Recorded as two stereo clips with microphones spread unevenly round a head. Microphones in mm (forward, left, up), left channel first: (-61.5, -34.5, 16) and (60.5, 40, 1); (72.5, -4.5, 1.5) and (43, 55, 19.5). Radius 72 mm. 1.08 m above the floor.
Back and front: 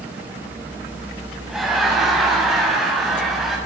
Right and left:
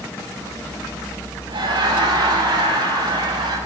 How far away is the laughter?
About 7.5 m.